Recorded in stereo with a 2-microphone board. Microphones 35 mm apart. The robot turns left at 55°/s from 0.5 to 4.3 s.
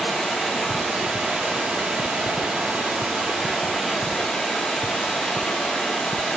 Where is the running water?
10° right, 1.4 m; by 6.4 s 145° left, 1.4 m.